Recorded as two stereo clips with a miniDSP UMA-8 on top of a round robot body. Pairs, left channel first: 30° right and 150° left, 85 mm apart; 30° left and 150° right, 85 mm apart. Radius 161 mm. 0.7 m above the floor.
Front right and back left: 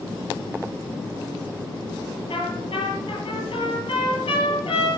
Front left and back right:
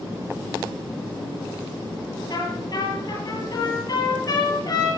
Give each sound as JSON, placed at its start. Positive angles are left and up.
{"t": 2.3, "sound": "a trumpet", "azimuth_deg": -15, "distance_m": 8.5}